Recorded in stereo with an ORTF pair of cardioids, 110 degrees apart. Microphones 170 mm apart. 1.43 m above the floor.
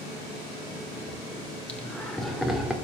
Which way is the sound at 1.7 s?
10° left.